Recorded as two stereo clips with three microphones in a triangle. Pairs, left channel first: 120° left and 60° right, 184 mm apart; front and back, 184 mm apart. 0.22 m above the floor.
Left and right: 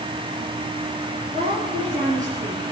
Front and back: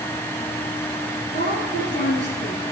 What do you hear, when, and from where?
1.3 s a woman speaking: 5° right, 4.5 m; by 2.6 s 20° right, 5.5 m